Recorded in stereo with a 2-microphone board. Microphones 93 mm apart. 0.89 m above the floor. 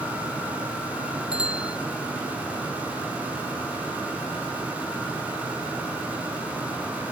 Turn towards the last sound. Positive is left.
turn(degrees=-10)  # may be behind; listen again after turning